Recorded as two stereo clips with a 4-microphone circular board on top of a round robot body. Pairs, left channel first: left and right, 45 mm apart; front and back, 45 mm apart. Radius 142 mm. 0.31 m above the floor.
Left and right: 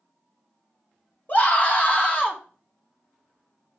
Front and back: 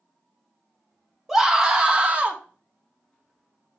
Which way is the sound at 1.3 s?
100° left.